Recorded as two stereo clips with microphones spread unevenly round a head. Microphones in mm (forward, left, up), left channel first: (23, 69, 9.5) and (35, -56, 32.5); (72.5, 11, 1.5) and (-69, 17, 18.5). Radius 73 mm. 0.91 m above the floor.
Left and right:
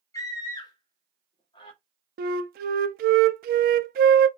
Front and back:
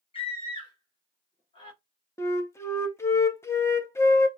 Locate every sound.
0.1 s a scream: 40° left, 1.4 m; by 1.8 s 50° left, 2.5 m
2.2 s a flute: 75° right, 0.5 m